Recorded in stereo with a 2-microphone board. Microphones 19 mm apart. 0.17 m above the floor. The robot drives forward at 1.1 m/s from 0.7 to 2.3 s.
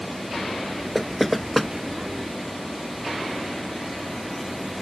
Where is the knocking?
Centre (ahead or behind).